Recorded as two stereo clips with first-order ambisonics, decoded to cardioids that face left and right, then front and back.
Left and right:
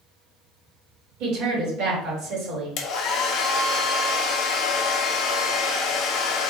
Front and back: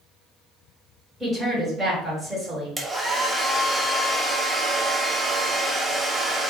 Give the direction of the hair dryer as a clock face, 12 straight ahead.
8 o'clock.